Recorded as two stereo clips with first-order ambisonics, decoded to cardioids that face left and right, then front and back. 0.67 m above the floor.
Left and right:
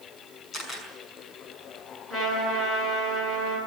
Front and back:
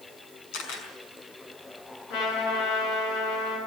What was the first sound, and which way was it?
A camera shutter, 15° left.